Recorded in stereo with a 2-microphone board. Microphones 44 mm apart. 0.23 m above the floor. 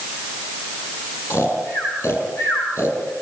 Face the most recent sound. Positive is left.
turn(degrees=80)